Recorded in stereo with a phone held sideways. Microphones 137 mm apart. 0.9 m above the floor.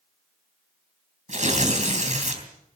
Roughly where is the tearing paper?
Right.